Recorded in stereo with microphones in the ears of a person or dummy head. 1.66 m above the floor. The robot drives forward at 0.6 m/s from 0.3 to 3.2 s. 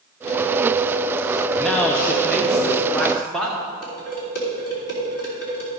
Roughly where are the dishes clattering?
Left.